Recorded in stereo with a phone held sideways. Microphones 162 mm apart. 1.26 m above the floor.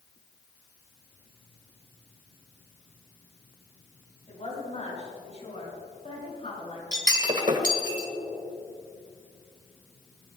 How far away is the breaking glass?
About 1.7 m.